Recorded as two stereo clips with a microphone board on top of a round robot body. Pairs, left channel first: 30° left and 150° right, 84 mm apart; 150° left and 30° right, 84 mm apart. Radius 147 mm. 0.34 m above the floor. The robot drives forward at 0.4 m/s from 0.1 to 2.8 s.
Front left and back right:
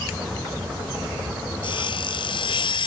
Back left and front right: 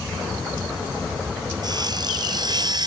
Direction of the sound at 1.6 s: 5° left.